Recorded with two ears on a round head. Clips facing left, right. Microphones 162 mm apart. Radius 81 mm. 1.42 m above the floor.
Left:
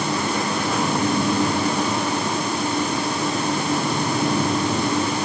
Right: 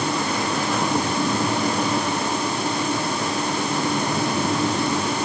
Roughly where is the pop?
I don't hear a pop.